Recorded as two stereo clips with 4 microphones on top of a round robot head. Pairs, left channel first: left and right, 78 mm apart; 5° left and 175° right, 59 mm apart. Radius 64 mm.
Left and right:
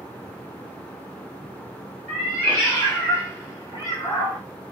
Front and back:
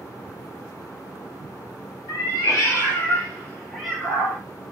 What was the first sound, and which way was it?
A cat meowing, 10° left.